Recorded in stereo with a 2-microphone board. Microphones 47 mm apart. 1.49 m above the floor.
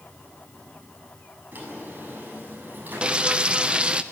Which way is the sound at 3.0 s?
20° right (ahead or behind).